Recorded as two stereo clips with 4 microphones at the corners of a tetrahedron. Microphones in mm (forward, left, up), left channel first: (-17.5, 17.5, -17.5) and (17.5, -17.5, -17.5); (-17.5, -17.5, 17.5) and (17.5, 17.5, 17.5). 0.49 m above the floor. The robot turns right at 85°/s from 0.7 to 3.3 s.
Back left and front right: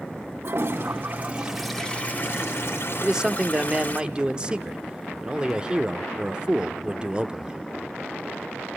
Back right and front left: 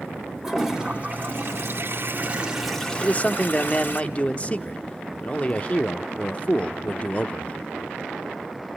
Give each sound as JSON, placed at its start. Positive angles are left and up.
{"t": 0.4, "sound": "a toilet flushing", "azimuth_deg": -35, "distance_m": 2.0}
{"t": 3.0, "sound": "a man speaking", "azimuth_deg": -125, "distance_m": 1.0}